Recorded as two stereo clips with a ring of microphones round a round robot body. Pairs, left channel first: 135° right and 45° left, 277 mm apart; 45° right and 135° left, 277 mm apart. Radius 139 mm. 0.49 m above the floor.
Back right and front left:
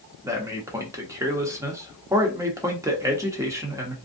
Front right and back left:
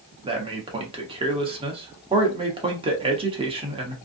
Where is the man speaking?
105° left, 0.8 m.